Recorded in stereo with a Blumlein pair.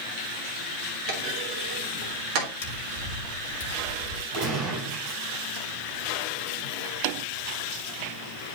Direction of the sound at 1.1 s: 40° right.